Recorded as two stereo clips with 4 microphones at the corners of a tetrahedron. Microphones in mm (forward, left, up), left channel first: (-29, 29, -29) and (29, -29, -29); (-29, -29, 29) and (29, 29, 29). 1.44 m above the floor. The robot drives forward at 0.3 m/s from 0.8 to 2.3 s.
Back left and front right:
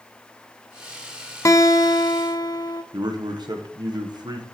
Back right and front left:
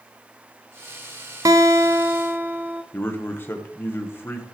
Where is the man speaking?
70° right, 1.1 m.